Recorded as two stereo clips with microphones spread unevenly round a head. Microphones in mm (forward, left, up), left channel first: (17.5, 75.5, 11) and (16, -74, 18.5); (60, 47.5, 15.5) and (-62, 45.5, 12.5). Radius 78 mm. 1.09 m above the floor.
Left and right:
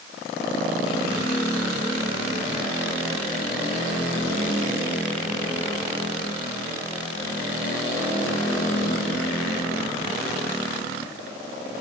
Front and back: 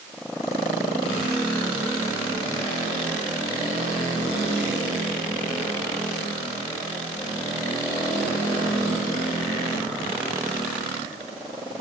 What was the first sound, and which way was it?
Only background noise.